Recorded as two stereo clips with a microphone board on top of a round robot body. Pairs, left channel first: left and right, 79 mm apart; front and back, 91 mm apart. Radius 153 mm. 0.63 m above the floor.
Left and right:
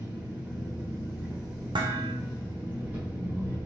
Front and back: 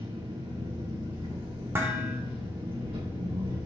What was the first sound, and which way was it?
An engine running, 160° right.